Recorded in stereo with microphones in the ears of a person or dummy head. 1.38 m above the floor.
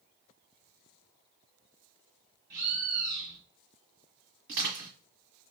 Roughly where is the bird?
Right.